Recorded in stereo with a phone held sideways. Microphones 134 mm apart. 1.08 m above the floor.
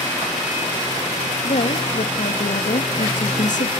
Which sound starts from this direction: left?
A woman speaking, at 1.4 s.